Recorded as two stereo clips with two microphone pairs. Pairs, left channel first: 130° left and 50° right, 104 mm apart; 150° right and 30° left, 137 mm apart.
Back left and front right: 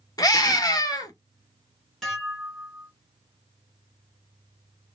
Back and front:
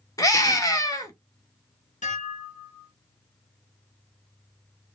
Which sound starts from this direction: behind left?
A scream, at 0.2 s.